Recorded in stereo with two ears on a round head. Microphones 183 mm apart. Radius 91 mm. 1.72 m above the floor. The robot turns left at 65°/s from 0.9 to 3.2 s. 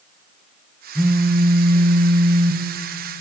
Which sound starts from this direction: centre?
A phone buzzing, at 0.9 s.